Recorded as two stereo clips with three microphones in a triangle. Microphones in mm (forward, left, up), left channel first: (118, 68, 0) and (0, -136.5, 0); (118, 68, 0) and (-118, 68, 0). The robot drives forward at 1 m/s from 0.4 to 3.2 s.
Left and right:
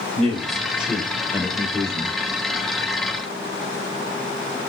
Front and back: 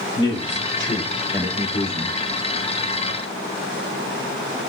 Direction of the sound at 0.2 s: 30° right.